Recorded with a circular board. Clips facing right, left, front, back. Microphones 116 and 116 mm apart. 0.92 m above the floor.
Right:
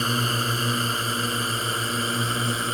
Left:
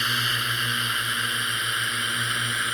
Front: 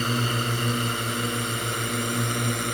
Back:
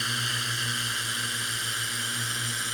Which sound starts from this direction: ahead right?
A drone, at 0.0 s.